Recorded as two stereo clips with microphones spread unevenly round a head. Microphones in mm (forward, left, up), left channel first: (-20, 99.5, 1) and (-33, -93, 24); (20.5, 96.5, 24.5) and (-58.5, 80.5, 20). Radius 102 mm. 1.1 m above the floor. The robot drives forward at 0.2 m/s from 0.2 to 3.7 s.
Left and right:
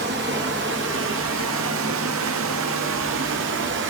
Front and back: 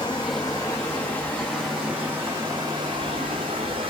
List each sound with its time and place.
0.0 s running water: 55° right, 0.8 m; by 3.9 s 115° right, 0.7 m